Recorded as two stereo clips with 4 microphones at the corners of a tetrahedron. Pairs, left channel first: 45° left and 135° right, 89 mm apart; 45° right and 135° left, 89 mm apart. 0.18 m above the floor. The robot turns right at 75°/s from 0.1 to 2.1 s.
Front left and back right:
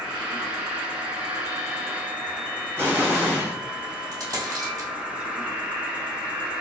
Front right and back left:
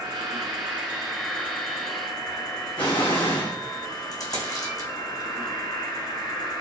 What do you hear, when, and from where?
0.0 s an insect: 145° left, 1.4 m; by 6.6 s 65° right, 1.4 m
2.8 s an explosion: 75° right, 2 m
4.1 s a dropped coin: 85° right, 2 m